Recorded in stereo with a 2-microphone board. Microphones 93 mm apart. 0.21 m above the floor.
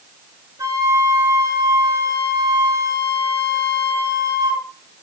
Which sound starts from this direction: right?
A flute, at 0.6 s.